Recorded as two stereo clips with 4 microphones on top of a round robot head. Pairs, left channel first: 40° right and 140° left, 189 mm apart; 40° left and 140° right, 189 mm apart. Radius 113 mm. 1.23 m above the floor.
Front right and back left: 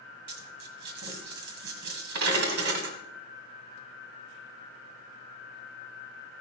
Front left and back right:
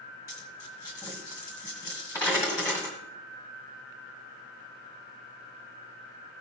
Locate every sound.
0.3 s a dropped coin: 110° left, 1.7 m